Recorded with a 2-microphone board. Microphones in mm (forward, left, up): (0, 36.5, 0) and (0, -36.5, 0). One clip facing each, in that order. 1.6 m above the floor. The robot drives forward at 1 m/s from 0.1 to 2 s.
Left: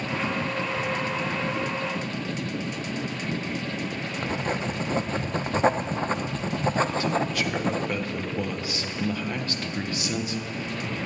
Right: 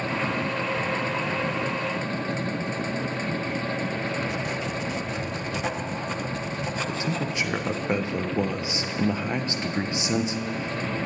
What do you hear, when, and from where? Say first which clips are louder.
4.2 s writing: left 1 dB; 40° left (ahead or behind), 0.7 m
6.9 s a man speaking: left 3 dB; 20° right (ahead or behind), 1.2 m